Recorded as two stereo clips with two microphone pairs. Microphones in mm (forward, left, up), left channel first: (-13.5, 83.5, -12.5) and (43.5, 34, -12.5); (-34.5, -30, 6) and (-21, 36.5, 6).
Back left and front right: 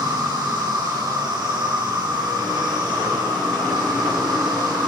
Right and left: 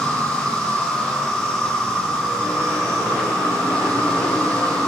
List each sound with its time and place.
0.0 s an insect: 30° right, 3.5 m